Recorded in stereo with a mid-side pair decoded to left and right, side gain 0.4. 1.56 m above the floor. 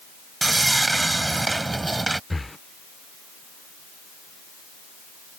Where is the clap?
I don't hear a clap.